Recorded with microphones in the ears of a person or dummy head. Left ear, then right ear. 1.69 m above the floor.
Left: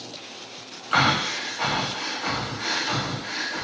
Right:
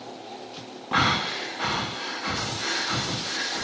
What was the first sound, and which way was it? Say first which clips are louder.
Breathing: left 2 dB; 10° left (ahead or behind).